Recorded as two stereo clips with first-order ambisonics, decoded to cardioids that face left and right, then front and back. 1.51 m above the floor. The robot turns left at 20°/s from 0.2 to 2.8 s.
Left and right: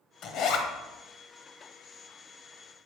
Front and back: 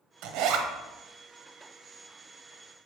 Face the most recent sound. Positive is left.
turn(degrees=90)